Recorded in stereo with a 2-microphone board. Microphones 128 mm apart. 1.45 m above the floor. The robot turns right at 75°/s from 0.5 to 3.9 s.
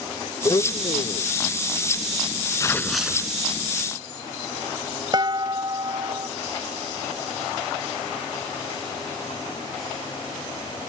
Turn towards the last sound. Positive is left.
turn(degrees=-35)  # may be behind; listen again after turning